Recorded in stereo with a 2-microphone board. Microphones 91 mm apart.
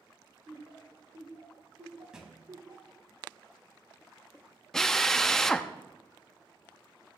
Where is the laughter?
50° right (ahead or behind), 3 m; by 3.0 s 35° right (ahead or behind), 1.7 m.